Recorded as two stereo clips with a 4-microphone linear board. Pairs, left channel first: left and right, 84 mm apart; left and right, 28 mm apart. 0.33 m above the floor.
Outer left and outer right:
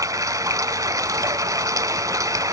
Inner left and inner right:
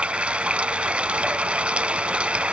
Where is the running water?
45° right (ahead or behind), 0.9 m.